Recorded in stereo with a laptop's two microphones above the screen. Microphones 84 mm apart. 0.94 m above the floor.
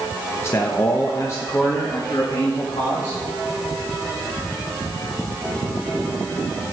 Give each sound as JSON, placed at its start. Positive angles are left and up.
{"t": 0.4, "sound": "a man speaking", "side_deg": 30, "distance_m": 0.9}